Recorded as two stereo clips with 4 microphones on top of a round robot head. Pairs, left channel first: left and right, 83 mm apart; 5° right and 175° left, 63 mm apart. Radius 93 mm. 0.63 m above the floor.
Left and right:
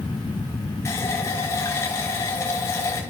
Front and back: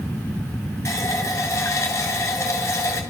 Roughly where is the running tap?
Ahead left.